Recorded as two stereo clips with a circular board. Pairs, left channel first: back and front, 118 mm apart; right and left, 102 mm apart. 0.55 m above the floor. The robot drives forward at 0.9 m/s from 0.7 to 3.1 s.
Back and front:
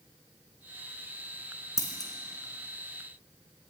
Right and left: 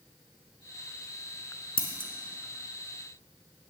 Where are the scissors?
115° right, 1.5 m; by 2.1 s 125° right, 1.6 m.